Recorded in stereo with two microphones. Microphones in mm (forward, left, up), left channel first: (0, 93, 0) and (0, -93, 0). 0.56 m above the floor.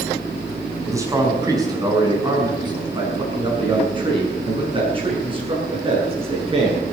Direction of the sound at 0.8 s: 15° right (ahead or behind).